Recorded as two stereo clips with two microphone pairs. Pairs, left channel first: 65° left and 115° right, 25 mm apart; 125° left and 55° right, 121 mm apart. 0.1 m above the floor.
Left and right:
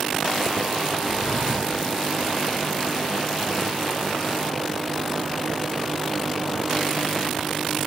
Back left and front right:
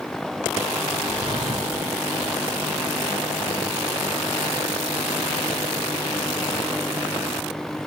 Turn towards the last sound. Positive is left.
turn(degrees=-10)